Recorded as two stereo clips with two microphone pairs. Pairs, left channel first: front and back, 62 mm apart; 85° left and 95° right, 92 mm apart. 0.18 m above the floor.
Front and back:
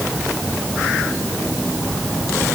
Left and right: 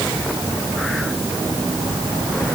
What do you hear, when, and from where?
Only background noise.